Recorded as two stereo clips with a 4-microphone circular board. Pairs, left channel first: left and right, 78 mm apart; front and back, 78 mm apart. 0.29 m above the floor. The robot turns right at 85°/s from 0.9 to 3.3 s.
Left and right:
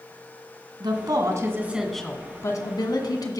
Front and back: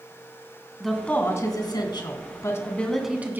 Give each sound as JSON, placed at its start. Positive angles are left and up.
{"t": 0.8, "sound": "a woman speaking", "azimuth_deg": -85, "distance_m": 2.0}